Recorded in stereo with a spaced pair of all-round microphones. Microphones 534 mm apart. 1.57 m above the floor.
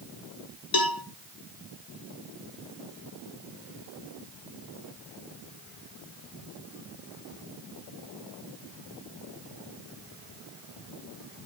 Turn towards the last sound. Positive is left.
turn(degrees=45)  # may be behind; listen again after turning